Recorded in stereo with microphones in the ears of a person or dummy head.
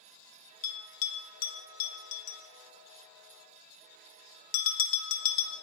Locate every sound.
0.6 s a bell: 45° left (ahead or behind), 1.1 m